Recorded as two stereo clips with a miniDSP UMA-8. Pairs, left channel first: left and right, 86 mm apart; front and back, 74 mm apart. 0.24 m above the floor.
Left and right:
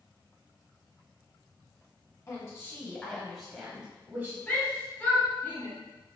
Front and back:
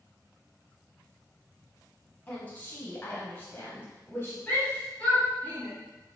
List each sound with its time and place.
2.3 s a woman speaking: 60° left, 1.4 m; by 4.4 s 40° right, 1.3 m
4.5 s a shout: 50° left, 1.7 m